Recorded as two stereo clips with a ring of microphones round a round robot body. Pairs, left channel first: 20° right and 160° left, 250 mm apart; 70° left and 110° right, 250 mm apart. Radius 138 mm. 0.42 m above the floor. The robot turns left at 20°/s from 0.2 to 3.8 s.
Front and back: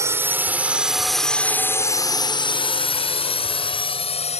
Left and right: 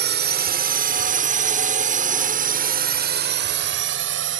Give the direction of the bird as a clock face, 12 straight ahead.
I don't hear a bird.